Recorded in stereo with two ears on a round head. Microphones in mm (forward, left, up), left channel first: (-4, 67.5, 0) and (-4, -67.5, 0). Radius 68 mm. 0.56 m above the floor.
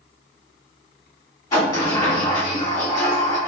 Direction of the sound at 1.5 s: 25° left (ahead or behind).